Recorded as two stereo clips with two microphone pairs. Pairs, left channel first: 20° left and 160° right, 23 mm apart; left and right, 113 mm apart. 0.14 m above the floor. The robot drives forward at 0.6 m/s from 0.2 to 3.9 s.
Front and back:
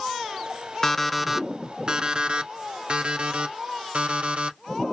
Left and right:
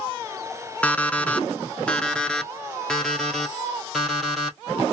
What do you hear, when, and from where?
0.8 s an alarm clock: 25° left, 0.6 m; by 4.6 s 175° left, 1.8 m